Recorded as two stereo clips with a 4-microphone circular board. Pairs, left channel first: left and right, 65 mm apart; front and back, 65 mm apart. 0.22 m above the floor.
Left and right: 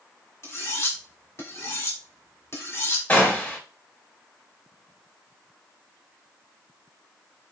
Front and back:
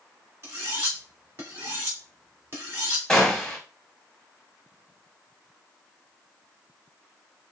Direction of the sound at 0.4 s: 130° left.